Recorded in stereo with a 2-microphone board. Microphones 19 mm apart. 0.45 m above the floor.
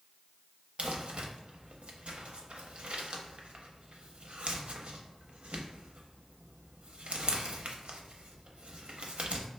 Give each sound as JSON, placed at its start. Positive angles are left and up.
{"t": 0.8, "sound": "crumpling", "side_deg": -85, "distance_m": 0.6}